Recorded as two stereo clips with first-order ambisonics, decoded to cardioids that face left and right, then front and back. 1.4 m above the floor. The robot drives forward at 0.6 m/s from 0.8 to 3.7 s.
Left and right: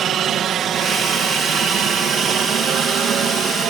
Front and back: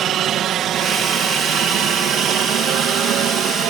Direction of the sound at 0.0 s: 140° right.